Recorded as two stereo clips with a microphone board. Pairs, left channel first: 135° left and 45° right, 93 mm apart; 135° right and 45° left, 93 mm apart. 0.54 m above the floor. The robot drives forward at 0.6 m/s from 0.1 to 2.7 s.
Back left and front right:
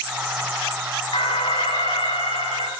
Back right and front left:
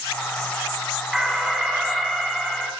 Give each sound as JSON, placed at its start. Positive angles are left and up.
{"t": 1.1, "sound": "an alarm", "azimuth_deg": 130, "distance_m": 7.0}